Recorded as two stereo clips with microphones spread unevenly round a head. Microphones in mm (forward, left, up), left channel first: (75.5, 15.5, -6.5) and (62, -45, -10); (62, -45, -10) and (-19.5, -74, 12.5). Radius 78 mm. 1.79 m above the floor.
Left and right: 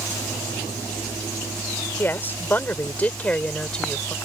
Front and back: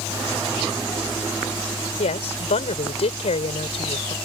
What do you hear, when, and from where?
2.0 s a woman speaking: 20° left; by 4.1 s straight ahead